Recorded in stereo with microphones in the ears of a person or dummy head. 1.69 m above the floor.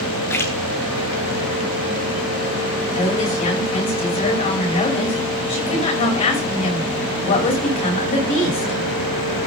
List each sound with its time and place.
0.3 s a splash: 20° left (ahead or behind), 1.3 m
2.9 s a woman speaking: 45° left (ahead or behind), 5.5 m